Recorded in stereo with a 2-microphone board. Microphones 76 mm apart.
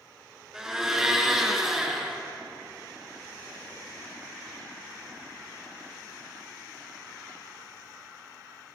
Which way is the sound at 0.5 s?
10° right (ahead or behind).